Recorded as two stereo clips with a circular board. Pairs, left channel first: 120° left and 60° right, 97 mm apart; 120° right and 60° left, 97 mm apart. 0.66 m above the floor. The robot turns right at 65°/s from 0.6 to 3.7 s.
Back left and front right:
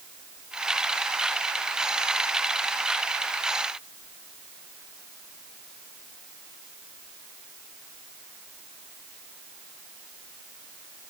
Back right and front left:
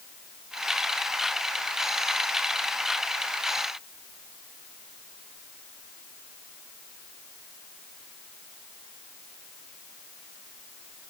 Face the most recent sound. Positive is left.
No sound to turn to.